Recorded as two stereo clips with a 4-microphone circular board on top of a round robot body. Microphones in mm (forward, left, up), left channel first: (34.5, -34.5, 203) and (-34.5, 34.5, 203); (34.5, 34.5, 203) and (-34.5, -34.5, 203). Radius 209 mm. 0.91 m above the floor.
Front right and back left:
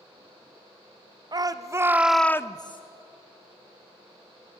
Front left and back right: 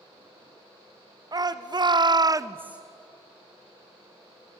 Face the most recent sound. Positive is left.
turn(degrees=-55)